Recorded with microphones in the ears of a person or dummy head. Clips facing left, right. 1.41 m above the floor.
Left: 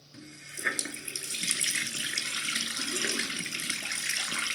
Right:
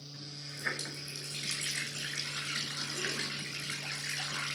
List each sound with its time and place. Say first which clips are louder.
0.1 s a running tap: left 4 dB; 55° left (ahead or behind), 1.8 m